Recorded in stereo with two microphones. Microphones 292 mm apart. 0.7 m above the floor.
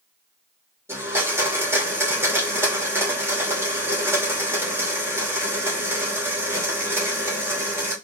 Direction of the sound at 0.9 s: 10° right (ahead or behind).